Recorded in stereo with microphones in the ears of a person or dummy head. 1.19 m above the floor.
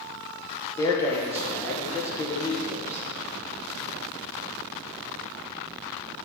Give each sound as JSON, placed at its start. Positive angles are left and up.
{"t": 0.8, "sound": "a man speaking", "side_deg": 10, "distance_m": 0.9}